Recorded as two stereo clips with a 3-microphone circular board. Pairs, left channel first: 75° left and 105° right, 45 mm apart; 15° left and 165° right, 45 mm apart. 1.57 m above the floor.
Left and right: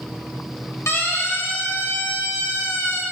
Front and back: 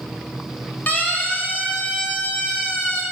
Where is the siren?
65° left, 3.5 m; by 3.0 s 75° left, 4.5 m.